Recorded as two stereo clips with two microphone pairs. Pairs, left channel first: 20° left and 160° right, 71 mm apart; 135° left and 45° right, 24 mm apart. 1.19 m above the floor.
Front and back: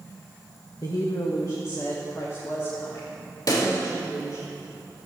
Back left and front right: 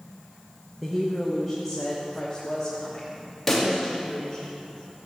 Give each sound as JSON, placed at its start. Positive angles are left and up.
{"t": 0.8, "sound": "a woman speaking", "azimuth_deg": 40, "distance_m": 1.2}
{"t": 3.5, "sound": "a pop", "azimuth_deg": 45, "distance_m": 2.5}